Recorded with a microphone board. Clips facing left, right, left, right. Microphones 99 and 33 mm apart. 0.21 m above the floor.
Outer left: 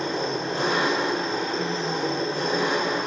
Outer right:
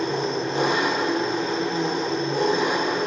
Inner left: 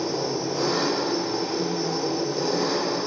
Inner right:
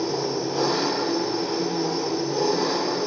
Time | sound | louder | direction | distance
0.0 | an engine running | outer right 2 dB, inner right 1 dB | 20° right (ahead or behind) | 2.0 m